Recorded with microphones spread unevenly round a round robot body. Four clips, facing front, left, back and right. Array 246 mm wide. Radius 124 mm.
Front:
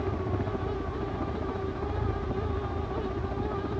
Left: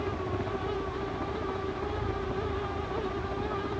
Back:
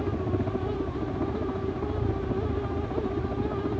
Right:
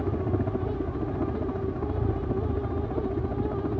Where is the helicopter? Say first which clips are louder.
Right 4 dB, back 3 dB; 125° right; by 3.8 s 130° right.